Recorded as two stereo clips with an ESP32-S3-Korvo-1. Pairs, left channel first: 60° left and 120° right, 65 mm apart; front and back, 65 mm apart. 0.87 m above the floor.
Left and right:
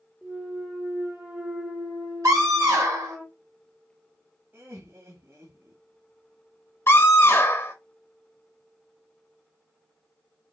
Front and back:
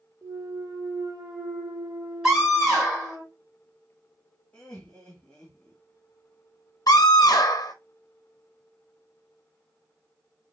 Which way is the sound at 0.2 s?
165° left.